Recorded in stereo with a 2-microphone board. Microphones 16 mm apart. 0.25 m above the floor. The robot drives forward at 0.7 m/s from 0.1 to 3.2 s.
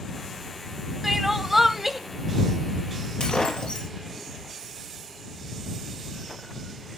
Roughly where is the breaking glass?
Left.